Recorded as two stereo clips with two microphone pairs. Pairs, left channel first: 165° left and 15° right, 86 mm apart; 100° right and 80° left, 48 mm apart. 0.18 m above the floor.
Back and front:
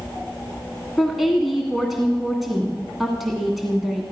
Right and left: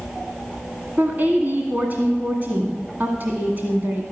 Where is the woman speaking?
70° left, 1.4 m.